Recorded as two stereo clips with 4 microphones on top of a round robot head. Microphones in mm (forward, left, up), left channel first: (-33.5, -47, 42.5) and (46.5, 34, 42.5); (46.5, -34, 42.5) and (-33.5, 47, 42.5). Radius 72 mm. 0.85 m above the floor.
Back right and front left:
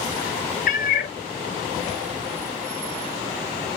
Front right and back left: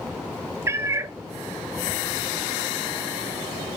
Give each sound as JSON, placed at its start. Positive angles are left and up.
{"t": 0.7, "sound": "a cat meowing", "azimuth_deg": -155, "distance_m": 0.7}